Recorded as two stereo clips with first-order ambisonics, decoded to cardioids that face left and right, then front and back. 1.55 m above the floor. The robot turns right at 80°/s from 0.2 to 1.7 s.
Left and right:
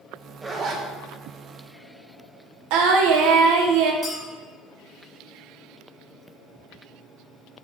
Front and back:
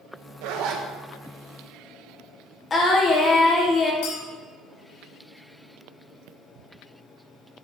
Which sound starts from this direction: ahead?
A clink, at 4.0 s.